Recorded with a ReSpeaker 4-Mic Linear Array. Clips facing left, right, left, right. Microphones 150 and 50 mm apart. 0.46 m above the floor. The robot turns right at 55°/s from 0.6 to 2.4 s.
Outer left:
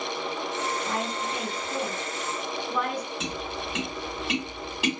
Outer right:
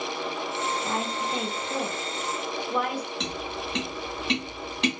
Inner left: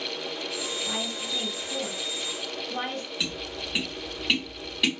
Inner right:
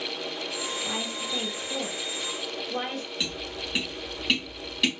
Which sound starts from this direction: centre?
Tapping, at 3.2 s.